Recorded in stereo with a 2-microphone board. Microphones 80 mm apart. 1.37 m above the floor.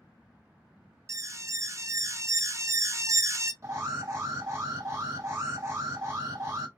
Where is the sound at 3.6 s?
35° right (ahead or behind), 1.9 m.